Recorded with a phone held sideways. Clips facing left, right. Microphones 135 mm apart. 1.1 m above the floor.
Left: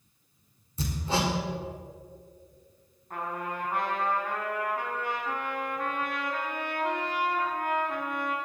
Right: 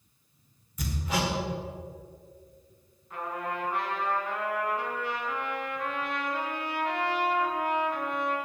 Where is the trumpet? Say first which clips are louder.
Even; 50° left (ahead or behind), 3.5 m.